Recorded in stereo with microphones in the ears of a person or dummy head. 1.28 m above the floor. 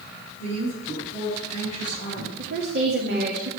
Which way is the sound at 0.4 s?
40° left (ahead or behind).